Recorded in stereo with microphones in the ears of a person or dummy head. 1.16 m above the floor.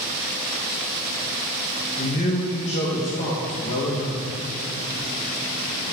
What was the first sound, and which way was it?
A man speaking, 40° left (ahead or behind).